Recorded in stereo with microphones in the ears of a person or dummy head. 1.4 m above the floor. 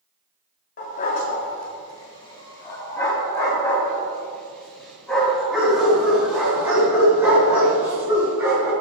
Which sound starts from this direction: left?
A dog barking, at 0.8 s.